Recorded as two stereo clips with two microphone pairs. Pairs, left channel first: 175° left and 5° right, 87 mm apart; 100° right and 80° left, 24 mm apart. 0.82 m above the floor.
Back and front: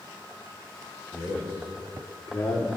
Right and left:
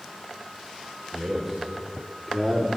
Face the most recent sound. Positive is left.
turn(degrees=175)